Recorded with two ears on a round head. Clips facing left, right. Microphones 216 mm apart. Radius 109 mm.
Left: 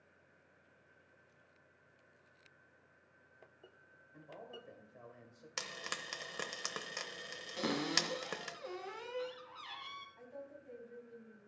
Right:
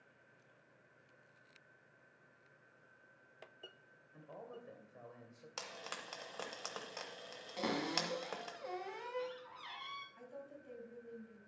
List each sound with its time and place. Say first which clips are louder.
4.1 s a man speaking: even; 5° right (ahead or behind), 2 m
5.6 s frying: left 2 dB; 30° left (ahead or behind), 0.9 m
7.6 s a cupboard door: left 2 dB; 10° left (ahead or behind), 1.4 m
10.2 s a woman speaking: left 1 dB; 50° right (ahead or behind), 3 m